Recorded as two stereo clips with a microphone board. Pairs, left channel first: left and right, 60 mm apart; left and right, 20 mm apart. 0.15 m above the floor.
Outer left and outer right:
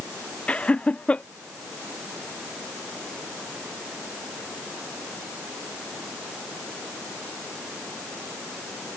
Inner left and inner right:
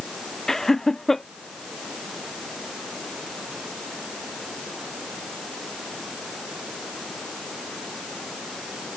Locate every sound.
0.5 s laughter: 20° left (ahead or behind)